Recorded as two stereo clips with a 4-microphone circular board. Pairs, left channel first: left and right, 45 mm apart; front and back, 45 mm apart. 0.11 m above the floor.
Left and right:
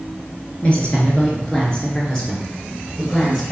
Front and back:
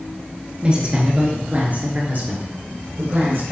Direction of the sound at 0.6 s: 130° left.